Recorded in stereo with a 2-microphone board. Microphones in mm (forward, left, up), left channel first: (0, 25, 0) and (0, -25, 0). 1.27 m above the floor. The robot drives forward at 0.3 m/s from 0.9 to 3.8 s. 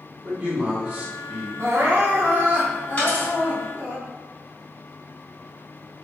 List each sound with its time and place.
0.2 s a man speaking: 25° right (ahead or behind), 1.2 m; by 1.5 s 20° right (ahead or behind), 1.3 m
1.6 s crying: 55° right (ahead or behind), 0.6 m; by 4.0 s 25° right (ahead or behind), 1.1 m
3.0 s a dropped coin: 30° left (ahead or behind), 1.5 m